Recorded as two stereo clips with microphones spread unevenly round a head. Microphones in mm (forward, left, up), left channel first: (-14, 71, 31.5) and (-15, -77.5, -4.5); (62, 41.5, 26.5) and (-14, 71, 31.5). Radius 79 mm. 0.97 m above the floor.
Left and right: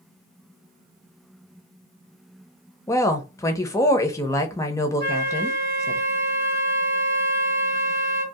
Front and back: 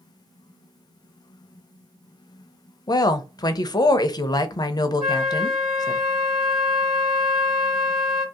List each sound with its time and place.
2.9 s a woman speaking: 15° left, 0.6 m
5.0 s a flute: 115° right, 1.3 m